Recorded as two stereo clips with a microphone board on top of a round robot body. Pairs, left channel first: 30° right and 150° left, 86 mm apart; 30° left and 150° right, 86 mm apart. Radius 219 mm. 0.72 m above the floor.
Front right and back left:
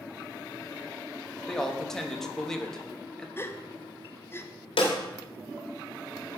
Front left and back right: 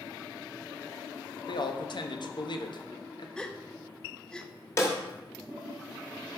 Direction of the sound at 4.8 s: 30° right.